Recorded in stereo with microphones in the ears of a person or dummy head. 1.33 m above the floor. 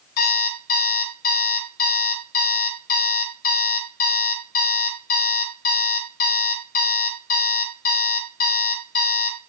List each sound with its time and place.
0.2 s an alarm clock: 45° left (ahead or behind), 0.8 m